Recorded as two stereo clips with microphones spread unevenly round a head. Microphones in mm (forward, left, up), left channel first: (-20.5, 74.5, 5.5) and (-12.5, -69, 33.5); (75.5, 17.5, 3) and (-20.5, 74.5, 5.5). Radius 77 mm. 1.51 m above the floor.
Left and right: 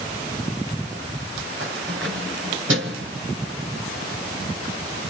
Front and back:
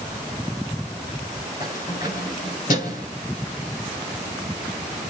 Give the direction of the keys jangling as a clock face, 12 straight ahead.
3 o'clock.